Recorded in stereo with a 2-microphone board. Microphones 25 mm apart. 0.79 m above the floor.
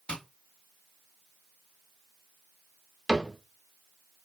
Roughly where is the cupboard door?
Centre.